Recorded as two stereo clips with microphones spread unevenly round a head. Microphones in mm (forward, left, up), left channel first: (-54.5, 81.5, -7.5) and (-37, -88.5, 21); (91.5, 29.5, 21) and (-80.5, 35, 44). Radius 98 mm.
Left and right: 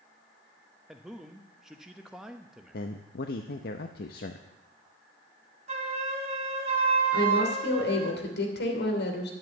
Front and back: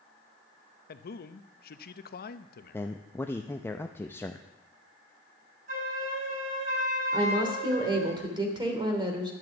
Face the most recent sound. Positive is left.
turn(degrees=115)